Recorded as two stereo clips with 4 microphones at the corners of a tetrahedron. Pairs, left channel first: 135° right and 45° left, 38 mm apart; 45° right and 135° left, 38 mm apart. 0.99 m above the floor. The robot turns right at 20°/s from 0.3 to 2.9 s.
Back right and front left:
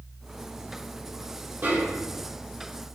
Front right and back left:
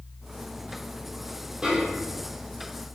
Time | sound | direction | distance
1.6 | a snare drum | 65° left | 2 m